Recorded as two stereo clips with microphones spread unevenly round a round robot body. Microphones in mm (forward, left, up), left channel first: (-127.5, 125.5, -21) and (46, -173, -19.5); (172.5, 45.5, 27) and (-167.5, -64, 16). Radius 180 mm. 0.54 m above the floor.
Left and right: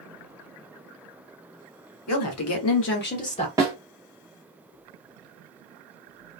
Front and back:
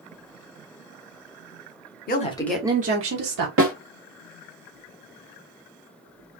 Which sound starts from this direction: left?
A woman speaking, at 2.1 s.